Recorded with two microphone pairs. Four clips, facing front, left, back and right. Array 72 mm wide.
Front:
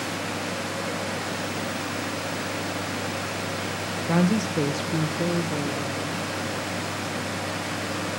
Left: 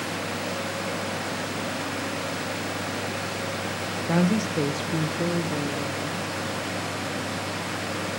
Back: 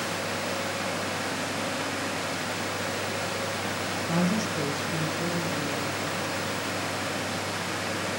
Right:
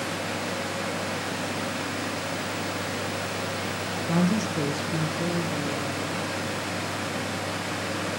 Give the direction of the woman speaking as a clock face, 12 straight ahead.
10 o'clock.